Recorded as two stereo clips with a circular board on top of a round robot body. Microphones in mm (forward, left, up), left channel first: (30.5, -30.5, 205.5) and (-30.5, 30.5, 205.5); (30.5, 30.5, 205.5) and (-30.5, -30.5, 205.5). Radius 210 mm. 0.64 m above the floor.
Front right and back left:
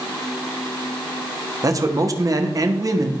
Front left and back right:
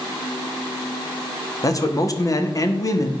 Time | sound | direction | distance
1.6 | a man speaking | 90° left | 1.4 m